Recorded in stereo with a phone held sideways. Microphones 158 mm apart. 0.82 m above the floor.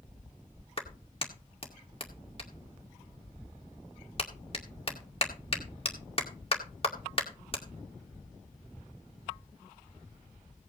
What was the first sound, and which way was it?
A clap, 40° left (ahead or behind).